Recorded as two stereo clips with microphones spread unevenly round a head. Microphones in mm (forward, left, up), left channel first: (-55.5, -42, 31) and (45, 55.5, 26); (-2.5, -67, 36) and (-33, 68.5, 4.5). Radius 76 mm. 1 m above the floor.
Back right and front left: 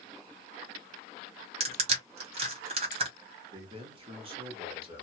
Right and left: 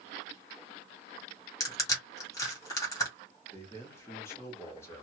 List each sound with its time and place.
1.6 s crushing: 5° right, 1.6 m
3.5 s a man speaking: straight ahead, 1.6 m